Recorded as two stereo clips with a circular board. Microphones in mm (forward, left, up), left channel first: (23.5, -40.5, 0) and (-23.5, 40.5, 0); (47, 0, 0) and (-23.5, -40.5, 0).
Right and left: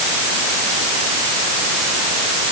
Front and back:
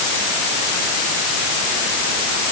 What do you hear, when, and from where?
Only background noise.